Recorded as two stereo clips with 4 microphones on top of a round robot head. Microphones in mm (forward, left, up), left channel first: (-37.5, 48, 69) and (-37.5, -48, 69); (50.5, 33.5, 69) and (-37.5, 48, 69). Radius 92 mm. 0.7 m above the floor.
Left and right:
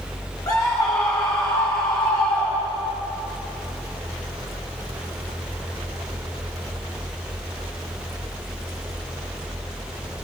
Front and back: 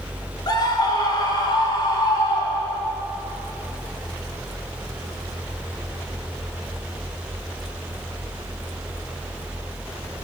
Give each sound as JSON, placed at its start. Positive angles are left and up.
{"t": 0.5, "sound": "a scream", "azimuth_deg": 30, "distance_m": 4.5}